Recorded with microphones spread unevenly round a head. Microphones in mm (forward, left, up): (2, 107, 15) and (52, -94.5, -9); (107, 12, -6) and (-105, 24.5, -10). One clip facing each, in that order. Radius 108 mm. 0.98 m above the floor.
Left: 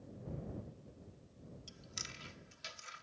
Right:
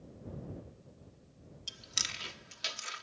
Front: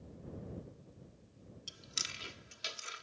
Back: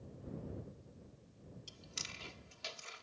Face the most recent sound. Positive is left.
turn(degrees=-75)